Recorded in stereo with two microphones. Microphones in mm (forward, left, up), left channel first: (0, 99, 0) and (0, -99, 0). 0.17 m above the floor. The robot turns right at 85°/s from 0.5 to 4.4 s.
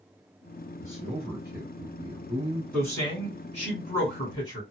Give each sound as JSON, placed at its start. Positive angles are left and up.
{"t": 0.8, "sound": "a man speaking", "azimuth_deg": 145, "distance_m": 1.2}
{"t": 2.7, "sound": "a man speaking", "azimuth_deg": 10, "distance_m": 1.8}